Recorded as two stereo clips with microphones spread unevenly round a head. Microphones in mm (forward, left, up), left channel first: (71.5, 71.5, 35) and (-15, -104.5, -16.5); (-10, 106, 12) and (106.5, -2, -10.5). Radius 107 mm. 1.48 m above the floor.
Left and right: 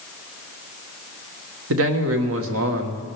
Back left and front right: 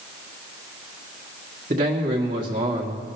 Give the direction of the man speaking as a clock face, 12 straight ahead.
3 o'clock.